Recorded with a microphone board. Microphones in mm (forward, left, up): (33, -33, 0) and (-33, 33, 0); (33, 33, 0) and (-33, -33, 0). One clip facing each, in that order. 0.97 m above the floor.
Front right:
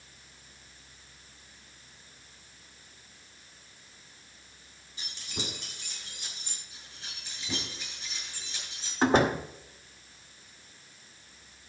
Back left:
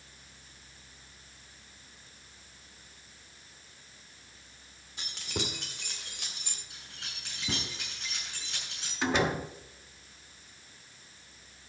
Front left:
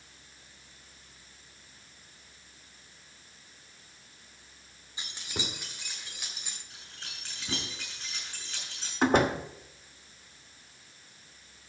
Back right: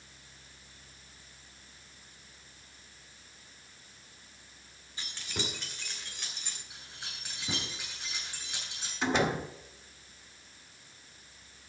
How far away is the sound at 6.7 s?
About 6.5 m.